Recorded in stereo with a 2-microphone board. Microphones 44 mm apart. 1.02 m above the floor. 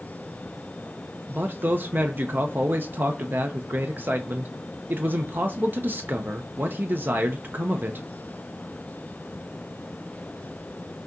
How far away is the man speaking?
About 0.5 m.